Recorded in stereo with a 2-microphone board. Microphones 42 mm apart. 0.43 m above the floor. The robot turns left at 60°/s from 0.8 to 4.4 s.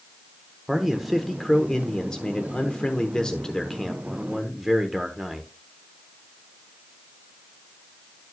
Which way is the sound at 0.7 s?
10° right (ahead or behind).